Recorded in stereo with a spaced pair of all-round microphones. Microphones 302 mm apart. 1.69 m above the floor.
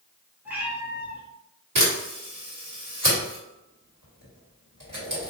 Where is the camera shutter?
85° right, 1.7 m.